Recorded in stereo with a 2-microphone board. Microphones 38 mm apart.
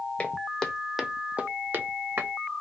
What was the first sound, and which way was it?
Footsteps, 30° left (ahead or behind).